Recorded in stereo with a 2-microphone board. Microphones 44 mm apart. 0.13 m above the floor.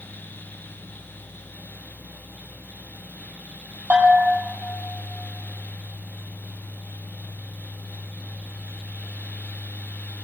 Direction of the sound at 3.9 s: 35° right (ahead or behind).